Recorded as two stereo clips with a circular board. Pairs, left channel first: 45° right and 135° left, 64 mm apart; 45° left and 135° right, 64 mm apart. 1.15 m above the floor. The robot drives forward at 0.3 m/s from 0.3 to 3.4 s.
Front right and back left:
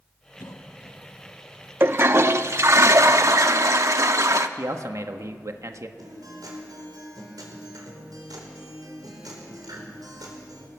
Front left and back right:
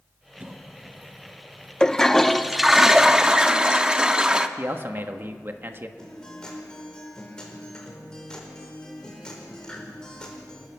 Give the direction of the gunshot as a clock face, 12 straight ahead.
I don't hear a gunshot.